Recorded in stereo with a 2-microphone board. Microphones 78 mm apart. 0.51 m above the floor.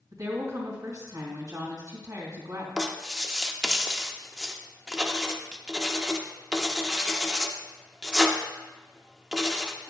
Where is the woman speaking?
50° right (ahead or behind), 3 m.